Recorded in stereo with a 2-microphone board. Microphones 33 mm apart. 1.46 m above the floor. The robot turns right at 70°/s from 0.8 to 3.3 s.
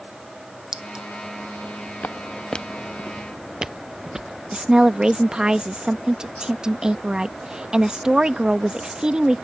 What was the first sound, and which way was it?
A clink, 20° right (ahead or behind).